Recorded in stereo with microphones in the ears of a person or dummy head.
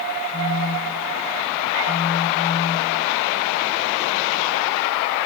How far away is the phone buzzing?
About 1.1 m.